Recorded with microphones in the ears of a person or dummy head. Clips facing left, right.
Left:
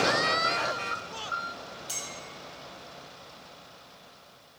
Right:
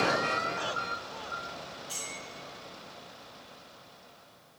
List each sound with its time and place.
1.9 s a clink: 65° left (ahead or behind), 1.5 m